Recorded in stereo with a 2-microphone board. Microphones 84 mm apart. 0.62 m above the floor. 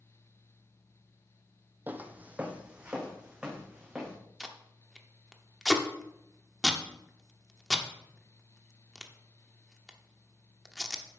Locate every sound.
1.9 s footsteps: 20° right (ahead or behind), 0.9 m; by 4.2 s 5° right (ahead or behind), 2.5 m
4.4 s tape being pulled: centre (ahead or behind), 0.8 m